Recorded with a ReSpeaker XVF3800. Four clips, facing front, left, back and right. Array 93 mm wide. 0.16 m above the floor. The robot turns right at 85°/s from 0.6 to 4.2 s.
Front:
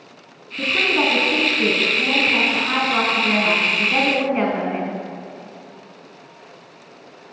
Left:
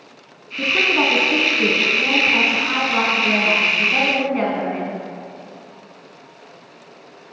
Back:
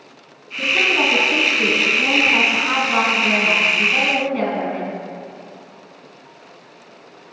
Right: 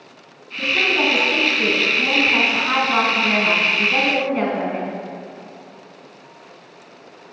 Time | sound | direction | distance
0.6 | a woman speaking | 50° left | 1.2 m